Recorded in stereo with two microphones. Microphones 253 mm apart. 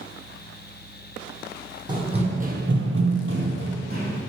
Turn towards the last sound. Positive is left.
turn(degrees=-35)  # may be behind; listen again after turning